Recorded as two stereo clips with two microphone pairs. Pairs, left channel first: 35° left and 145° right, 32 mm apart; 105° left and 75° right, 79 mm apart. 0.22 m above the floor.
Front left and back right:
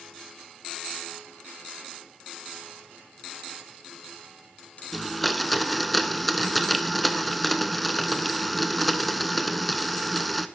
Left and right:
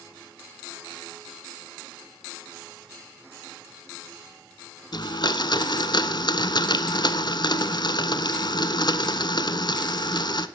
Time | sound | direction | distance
4.9 | a blender | 125° left | 0.6 m